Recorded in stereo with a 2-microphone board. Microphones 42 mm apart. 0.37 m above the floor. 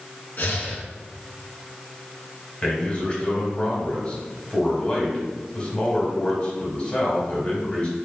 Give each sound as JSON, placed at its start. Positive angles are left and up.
{"t": 0.4, "sound": "breathing", "side_deg": 55, "distance_m": 1.1}
{"t": 2.6, "sound": "a man speaking", "side_deg": 25, "distance_m": 1.7}